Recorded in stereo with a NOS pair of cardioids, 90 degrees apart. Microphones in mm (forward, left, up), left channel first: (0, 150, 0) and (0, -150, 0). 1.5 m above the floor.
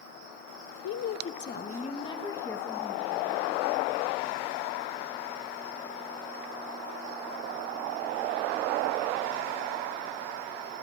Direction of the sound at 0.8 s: 70° left.